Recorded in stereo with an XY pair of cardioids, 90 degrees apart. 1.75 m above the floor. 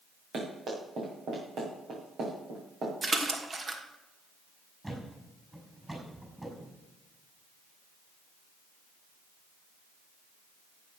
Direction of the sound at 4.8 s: 15° right.